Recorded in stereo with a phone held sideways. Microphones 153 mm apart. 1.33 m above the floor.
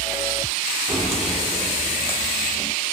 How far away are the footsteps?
About 2.5 m.